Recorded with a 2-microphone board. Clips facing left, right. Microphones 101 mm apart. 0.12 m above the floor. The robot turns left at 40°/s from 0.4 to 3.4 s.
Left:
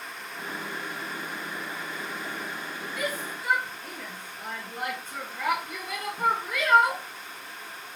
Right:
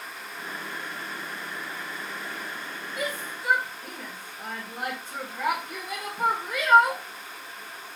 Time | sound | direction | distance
3.0 | a shout | 30° right (ahead or behind) | 1.8 m